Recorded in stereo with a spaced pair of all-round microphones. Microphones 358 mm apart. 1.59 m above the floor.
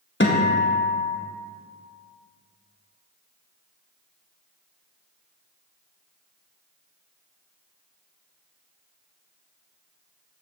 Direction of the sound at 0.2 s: 30° left (ahead or behind).